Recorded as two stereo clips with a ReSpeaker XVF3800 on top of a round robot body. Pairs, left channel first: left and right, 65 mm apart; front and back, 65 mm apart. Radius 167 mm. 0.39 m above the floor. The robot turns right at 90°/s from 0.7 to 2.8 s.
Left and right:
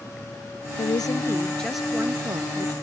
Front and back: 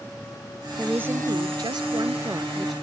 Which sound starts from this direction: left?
A woman speaking, at 0.8 s.